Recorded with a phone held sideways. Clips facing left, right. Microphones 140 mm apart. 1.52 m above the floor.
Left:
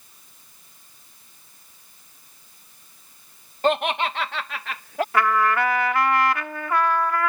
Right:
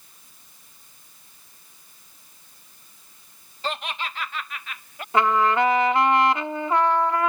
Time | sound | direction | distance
3.6 | laughter | 55° left (ahead or behind) | ?
5.1 | a trumpet | 20° right (ahead or behind) | ?